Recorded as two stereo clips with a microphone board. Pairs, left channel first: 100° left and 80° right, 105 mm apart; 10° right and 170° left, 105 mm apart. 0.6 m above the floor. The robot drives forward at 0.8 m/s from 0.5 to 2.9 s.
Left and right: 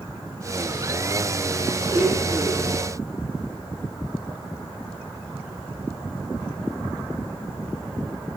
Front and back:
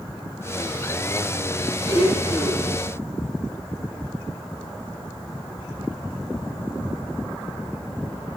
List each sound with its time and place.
1.9 s a blender: 30° right, 4 m; by 2.8 s 35° right, 3 m